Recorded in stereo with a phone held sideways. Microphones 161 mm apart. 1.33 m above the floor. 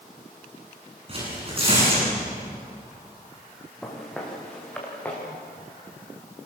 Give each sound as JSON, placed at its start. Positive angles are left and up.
{"t": 1.1, "sound": "tearing paper", "side_deg": -35, "distance_m": 9.5}
{"t": 3.8, "sound": "footsteps", "side_deg": 5, "distance_m": 5.0}